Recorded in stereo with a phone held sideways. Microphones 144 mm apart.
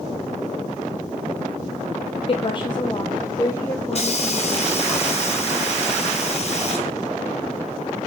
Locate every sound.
2.3 s a woman speaking: 40° left (ahead or behind), 0.6 m; by 4.9 s 20° left (ahead or behind), 1.9 m
3.9 s a hiss: 45° left (ahead or behind), 1.7 m